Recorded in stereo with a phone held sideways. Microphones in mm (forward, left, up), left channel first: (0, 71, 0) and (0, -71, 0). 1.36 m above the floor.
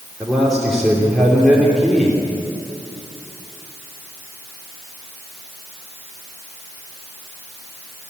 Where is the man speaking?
5° right (ahead or behind), 3.5 m.